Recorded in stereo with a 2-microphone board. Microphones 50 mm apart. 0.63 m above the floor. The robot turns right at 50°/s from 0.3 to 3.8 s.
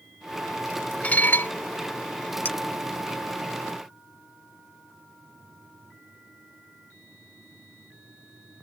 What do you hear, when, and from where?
1.0 s dishes clattering: 30° left (ahead or behind); by 1.5 s 55° left (ahead or behind)
2.5 s a clink: 40° left (ahead or behind); by 2.6 s 45° left (ahead or behind)